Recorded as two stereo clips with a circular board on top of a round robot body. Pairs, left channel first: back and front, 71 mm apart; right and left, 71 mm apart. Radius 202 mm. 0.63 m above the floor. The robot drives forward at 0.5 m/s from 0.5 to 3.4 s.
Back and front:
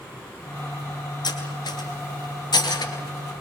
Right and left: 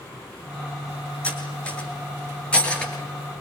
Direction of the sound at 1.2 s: 165° right.